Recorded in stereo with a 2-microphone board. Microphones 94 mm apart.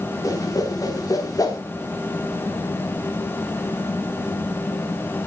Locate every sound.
0.2 s a whoosh: 40° left (ahead or behind), 3 m